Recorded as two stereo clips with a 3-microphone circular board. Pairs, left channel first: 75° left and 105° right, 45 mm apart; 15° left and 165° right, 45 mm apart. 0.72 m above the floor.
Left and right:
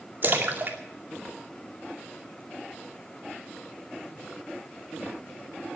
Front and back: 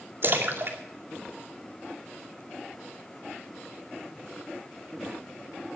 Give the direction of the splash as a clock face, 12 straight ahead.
5 o'clock.